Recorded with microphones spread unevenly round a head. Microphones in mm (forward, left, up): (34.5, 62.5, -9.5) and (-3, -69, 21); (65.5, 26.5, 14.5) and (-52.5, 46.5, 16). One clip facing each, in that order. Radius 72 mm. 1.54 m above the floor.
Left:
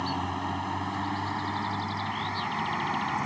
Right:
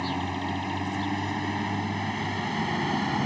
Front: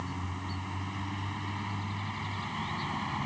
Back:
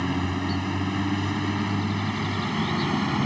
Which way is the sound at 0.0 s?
Straight behind.